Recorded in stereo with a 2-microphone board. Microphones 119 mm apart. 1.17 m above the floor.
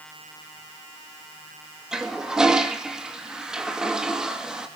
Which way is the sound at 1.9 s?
5° right (ahead or behind).